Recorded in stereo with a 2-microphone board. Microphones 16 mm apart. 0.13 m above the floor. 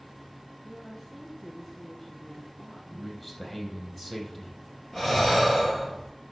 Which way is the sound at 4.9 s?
30° left (ahead or behind).